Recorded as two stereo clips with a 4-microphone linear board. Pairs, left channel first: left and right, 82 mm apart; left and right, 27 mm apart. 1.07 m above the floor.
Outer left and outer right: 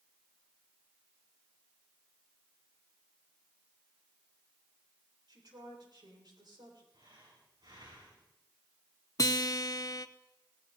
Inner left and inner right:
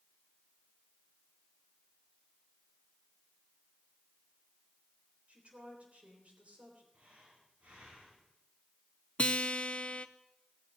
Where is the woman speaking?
65° right (ahead or behind), 3.5 m.